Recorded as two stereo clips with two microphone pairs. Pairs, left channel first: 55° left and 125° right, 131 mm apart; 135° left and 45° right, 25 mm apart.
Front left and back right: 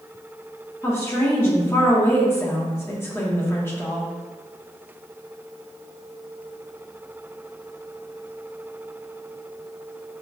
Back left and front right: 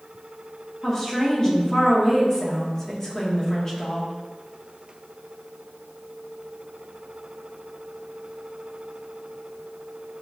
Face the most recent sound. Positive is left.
turn(degrees=90)